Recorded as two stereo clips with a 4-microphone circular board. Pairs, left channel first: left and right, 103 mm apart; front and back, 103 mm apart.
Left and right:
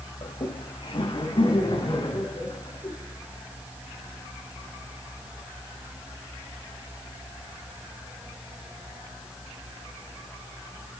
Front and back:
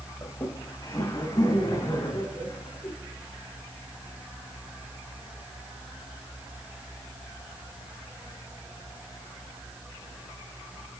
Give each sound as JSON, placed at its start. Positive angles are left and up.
{"t": 0.2, "sound": "laughter", "azimuth_deg": 60, "distance_m": 2.5}